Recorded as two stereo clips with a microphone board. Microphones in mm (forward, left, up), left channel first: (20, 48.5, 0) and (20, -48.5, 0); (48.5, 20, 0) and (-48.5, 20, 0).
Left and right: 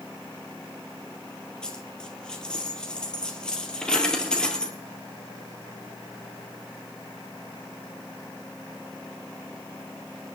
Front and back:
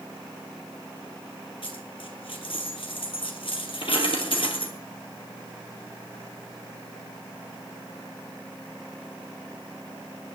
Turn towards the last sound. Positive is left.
turn(degrees=10)